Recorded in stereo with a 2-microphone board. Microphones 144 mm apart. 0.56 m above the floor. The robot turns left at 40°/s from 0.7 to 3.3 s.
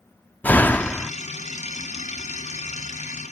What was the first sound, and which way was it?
A door slam, 15° left (ahead or behind).